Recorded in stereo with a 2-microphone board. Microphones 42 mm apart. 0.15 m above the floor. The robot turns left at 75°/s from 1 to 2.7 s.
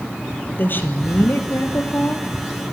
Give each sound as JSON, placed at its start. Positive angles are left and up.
{"t": 0.6, "sound": "a woman speaking", "azimuth_deg": 125, "distance_m": 3.0}